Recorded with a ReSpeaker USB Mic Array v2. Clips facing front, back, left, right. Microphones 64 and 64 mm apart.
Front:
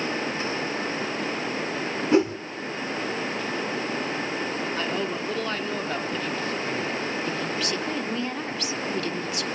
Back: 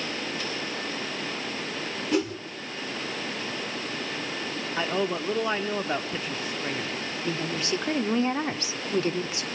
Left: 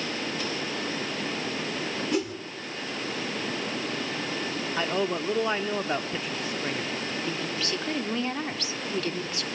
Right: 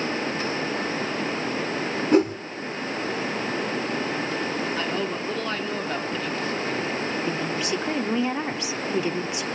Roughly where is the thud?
I don't hear a thud.